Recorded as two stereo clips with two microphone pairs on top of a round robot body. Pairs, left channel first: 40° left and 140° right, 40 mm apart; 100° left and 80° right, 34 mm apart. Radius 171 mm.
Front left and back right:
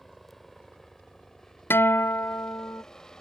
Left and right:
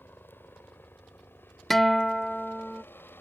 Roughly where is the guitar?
Ahead.